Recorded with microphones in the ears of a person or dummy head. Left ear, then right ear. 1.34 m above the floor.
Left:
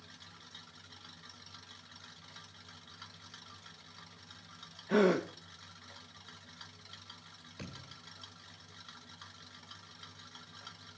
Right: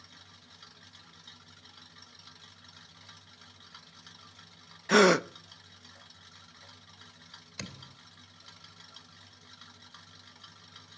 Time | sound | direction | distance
4.9 | a gasp | 60° right (ahead or behind) | 0.6 m
7.6 | a thud | 40° right (ahead or behind) | 2 m